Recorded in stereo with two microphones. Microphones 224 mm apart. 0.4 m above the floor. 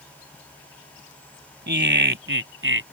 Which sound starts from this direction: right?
Laughter, at 1.7 s.